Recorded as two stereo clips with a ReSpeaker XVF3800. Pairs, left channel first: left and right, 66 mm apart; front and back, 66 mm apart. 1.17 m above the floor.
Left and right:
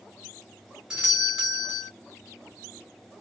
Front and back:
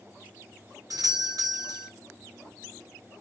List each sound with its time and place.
0.9 s a doorbell: 170° right, 1.4 m